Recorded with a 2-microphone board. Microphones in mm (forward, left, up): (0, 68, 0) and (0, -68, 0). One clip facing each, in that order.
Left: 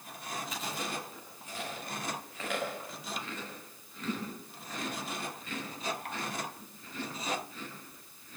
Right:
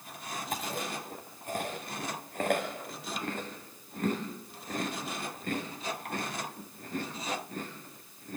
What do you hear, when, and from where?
0.5 s chewing: 50° right (ahead or behind), 6.5 m